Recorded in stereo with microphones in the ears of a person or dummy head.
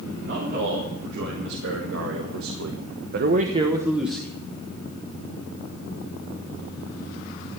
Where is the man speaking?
55° right (ahead or behind), 4 m; by 4.4 s 5° left (ahead or behind), 1.6 m.